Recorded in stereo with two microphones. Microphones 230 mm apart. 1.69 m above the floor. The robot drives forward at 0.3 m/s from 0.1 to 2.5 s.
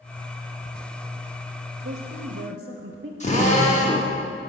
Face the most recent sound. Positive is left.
turn(degrees=30)  # may be behind; listen again after turning